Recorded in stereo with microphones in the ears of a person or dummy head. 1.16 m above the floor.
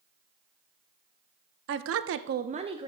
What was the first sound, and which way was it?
A woman speaking, 60° right (ahead or behind).